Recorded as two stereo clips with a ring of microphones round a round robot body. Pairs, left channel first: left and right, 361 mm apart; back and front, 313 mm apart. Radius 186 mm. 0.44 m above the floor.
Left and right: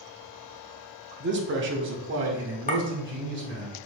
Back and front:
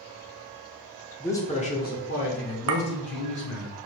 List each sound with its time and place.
1.2 s a man speaking: 100° right, 0.8 m; by 3.7 s 150° right, 1.9 m
2.7 s a clink: 25° left, 0.7 m